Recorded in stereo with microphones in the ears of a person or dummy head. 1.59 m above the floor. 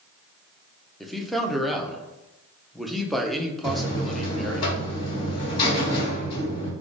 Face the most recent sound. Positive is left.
turn(degrees=30)  # may be behind; listen again after turning